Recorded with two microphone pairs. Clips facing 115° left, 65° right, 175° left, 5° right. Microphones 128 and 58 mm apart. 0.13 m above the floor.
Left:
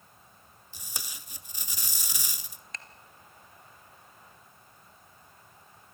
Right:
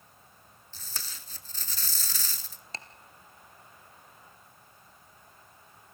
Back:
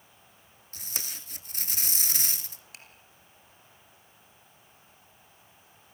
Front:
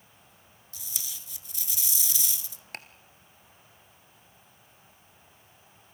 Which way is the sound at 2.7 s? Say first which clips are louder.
Right 3 dB, front 10 dB; 15° right.